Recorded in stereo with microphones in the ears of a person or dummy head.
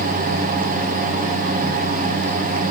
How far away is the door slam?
No door slam in this recording.